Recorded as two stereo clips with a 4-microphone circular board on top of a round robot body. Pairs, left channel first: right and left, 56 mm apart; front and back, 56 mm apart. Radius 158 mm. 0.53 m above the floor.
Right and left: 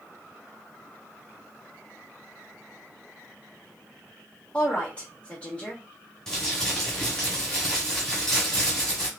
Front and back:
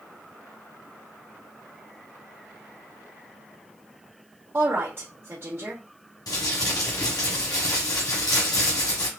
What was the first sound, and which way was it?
A woman speaking, 150° right.